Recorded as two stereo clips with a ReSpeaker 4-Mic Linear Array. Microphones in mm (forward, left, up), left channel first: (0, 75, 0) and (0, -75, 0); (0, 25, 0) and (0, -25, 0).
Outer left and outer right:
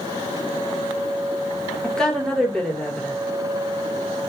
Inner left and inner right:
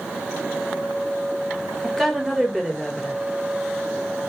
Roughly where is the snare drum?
I don't hear a snare drum.